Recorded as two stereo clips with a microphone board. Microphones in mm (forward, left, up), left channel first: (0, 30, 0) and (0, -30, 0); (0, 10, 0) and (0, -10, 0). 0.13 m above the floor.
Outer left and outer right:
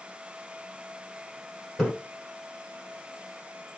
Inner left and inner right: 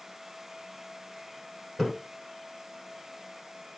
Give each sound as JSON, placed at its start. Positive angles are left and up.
{"t": 1.8, "sound": "a splash", "side_deg": 5, "distance_m": 1.7}